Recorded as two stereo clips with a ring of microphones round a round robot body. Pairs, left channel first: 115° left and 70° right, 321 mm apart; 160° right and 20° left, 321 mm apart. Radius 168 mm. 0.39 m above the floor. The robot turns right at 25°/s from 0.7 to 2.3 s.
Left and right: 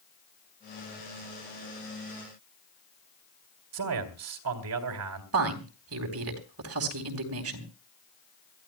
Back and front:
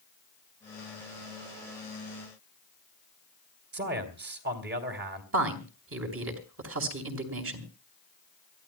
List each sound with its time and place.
3.7 s a man speaking: 35° right, 3 m
5.3 s a woman speaking: 25° right, 3.5 m